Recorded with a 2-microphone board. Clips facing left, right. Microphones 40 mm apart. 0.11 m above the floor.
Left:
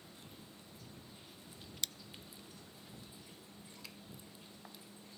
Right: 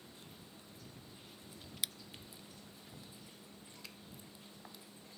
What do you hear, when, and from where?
1.8 s scissors: 10° right (ahead or behind)